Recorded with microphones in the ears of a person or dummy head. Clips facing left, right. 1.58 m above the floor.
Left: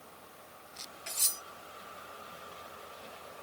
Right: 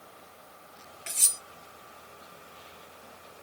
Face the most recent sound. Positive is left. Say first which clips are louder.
# even
turn(degrees=-35)  # may be behind; listen again after turning